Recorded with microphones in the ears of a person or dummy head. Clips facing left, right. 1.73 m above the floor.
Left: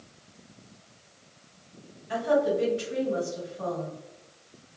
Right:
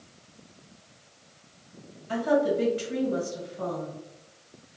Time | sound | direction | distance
2.1 | a woman speaking | 70° right (ahead or behind) | 1.8 m